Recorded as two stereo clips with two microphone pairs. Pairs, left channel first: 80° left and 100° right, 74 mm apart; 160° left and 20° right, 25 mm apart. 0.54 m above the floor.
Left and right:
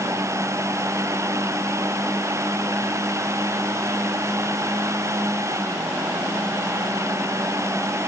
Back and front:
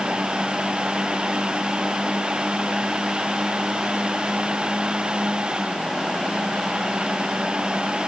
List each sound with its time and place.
Only background noise.